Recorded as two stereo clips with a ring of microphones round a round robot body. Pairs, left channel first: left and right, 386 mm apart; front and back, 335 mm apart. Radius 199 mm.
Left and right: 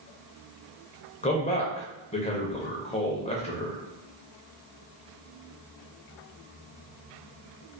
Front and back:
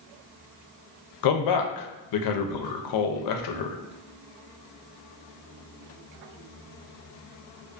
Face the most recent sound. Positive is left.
turn(degrees=15)